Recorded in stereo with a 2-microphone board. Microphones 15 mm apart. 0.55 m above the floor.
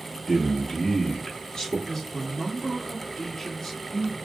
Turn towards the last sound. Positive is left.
turn(degrees=20)  # may be behind; listen again after turning